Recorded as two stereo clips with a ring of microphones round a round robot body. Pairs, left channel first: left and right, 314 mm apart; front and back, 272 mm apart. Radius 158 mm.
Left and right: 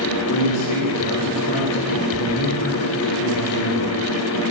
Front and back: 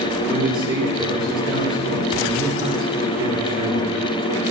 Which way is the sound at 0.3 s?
110° left.